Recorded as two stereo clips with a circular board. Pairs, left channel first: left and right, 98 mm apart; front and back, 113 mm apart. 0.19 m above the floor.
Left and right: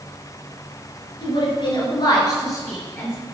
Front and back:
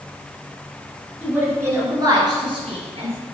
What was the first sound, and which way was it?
A woman speaking, 105° left.